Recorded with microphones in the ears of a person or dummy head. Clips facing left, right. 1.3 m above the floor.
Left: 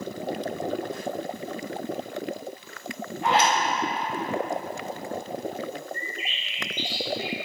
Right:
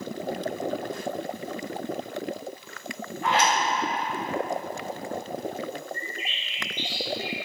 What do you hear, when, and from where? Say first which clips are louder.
3.2 s a zipper: left 2 dB; 20° left (ahead or behind), 2.5 m
5.9 s a bird: even; 60° left (ahead or behind), 1.9 m